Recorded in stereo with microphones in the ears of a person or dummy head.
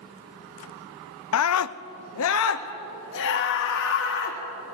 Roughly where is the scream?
Left.